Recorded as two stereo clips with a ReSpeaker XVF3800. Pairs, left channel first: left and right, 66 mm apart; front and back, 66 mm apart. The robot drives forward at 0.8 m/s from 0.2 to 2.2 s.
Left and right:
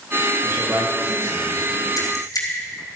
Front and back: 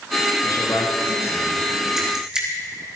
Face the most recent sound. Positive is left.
turn(degrees=105)